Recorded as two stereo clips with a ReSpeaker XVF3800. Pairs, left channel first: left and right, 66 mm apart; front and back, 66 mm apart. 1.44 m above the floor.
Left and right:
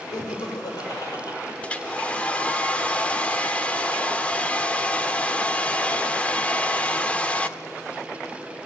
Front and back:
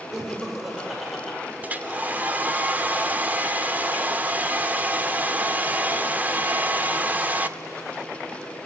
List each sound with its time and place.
0.1 s laughter: 100° left, 5.5 m; by 1.4 s 90° left, 6.5 m
1.6 s a hair dryer: 145° left, 1.2 m